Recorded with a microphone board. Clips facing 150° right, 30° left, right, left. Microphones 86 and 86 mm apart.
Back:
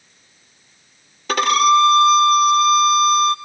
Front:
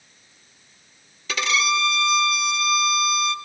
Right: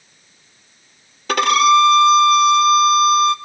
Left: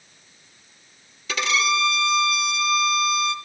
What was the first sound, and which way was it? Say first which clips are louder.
A violin: back 10 dB, right 11 dB; 115° right.